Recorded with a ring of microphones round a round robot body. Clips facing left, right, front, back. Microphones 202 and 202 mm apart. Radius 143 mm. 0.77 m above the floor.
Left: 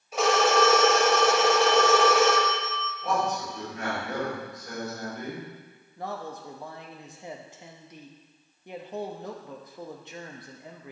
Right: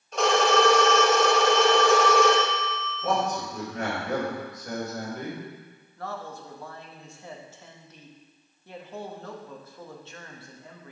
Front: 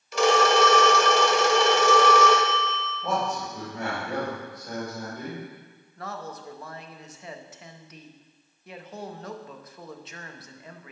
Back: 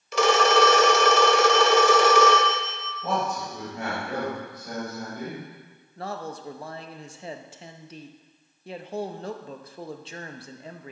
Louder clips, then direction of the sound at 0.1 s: Right 1 dB, even; 175° left.